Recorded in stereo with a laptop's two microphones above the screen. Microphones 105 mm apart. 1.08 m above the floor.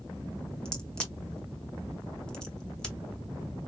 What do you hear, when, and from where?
0.7 s a crack: 10° left (ahead or behind), 0.8 m